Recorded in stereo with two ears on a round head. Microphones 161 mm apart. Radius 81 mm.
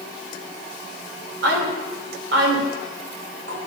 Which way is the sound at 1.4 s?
75° right (ahead or behind).